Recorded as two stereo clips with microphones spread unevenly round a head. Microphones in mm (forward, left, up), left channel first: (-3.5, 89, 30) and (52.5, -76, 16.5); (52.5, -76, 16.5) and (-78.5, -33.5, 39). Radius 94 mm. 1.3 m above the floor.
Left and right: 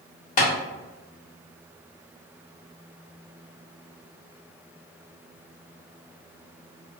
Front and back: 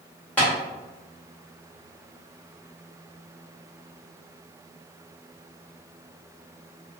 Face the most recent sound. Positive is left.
turn(degrees=60)